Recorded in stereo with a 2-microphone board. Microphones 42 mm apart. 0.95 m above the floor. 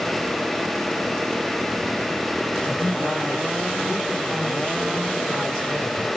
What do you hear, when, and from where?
2.6 s a woman speaking: 20° left (ahead or behind), 7 m; by 6.1 s 5° left (ahead or behind), 7.5 m